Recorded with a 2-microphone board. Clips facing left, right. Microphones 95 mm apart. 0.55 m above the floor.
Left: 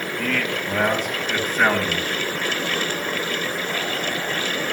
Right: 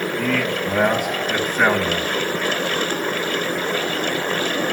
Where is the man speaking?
10° right (ahead or behind), 3.5 m.